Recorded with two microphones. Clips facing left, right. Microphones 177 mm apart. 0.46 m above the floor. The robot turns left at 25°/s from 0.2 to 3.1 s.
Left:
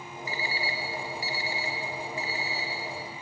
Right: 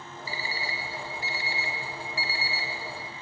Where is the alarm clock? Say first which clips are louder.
Left 2 dB; 35° right (ahead or behind), 0.6 m; by 3.1 s 75° right (ahead or behind), 0.6 m.